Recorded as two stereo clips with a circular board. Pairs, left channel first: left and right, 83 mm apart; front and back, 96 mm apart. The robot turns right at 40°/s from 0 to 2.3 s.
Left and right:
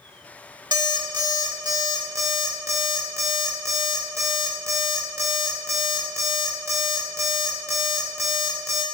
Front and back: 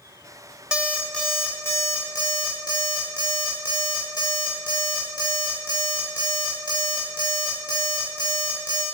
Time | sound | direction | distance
0.7 | an alarm clock | 100° right | 0.8 m